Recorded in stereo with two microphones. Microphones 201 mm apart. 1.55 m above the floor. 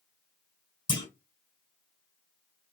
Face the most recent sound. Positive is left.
turn(degrees=25)  # may be behind; listen again after turning